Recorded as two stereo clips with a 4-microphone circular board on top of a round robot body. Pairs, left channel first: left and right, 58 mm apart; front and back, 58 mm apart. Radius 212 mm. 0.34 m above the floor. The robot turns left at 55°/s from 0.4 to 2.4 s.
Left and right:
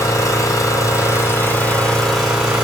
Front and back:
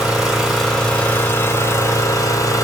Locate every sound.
0.0 s an engine running: 95° left, 1.9 m; by 2.6 s 15° right, 1.9 m